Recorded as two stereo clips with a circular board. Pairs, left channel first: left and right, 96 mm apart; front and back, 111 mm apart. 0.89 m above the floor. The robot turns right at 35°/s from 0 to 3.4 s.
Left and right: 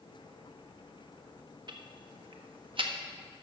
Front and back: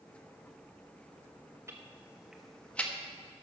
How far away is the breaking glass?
No breaking glass in this recording.